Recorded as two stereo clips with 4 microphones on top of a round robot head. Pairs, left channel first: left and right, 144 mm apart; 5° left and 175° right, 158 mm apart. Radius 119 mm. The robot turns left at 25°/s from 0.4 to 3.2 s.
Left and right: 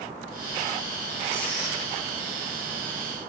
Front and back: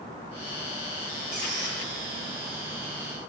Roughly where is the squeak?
Behind right.